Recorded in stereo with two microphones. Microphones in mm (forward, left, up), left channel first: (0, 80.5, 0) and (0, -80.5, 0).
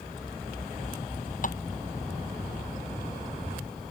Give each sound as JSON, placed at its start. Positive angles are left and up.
{"t": 1.4, "sound": "tapping", "side_deg": 55}